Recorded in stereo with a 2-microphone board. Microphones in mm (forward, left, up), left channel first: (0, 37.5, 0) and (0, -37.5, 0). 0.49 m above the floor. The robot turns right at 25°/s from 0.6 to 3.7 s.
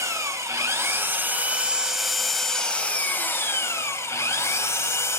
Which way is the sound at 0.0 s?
40° right.